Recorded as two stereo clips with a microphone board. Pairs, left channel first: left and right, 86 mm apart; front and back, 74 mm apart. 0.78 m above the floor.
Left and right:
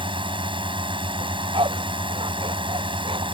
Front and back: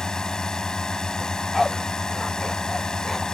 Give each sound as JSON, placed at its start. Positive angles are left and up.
{"t": 0.0, "sound": "a drone", "azimuth_deg": -80}
{"t": 1.2, "sound": "a dog barking", "azimuth_deg": -90}